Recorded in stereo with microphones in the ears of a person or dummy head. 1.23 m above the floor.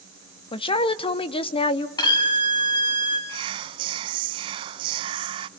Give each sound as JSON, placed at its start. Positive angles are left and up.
{"t": 0.5, "sound": "a woman speaking", "side_deg": 30, "distance_m": 0.8}
{"t": 2.0, "sound": "a violin", "side_deg": 30, "distance_m": 2.5}
{"t": 3.3, "sound": "whispering", "side_deg": -30, "distance_m": 0.7}